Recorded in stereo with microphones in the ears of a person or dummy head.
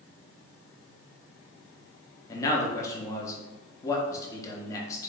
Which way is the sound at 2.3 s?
20° left (ahead or behind).